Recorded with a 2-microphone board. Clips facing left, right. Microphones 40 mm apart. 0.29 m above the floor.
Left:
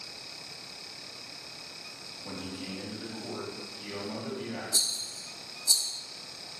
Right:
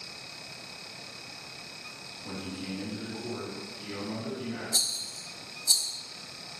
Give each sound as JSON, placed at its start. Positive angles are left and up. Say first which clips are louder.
{"t": 2.2, "sound": "a man speaking", "louder": "right 1 dB", "side_deg": 20, "distance_m": 1.2}
{"t": 4.7, "sound": "a rattle", "louder": "even", "side_deg": -55, "distance_m": 0.6}